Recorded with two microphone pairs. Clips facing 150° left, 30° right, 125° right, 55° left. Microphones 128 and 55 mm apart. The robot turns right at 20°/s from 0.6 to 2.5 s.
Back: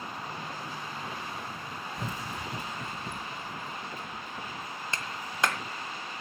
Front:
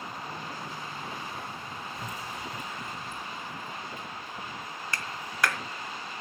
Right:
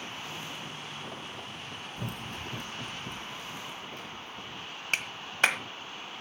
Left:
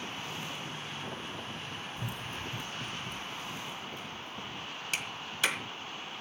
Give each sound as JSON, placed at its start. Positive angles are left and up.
{"t": 2.0, "sound": "running footsteps", "azimuth_deg": -145, "distance_m": 0.5}
{"t": 4.9, "sound": "a clap", "azimuth_deg": -150, "distance_m": 1.5}